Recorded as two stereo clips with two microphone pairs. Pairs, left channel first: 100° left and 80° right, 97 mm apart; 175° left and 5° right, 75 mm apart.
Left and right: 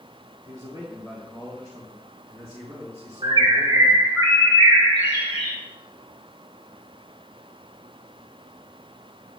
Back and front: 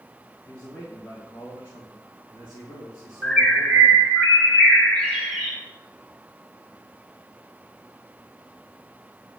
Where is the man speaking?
110° right, 3 m; by 4.1 s 140° right, 5 m.